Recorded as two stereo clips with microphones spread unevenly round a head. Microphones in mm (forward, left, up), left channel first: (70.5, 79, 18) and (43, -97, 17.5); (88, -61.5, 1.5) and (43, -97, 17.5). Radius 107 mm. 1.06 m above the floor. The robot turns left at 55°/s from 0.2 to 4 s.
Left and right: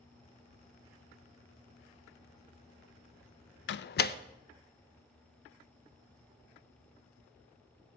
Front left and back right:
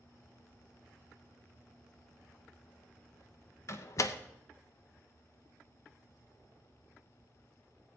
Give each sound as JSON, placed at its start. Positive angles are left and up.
{"t": 3.7, "sound": "a door slam", "azimuth_deg": 70, "distance_m": 0.6}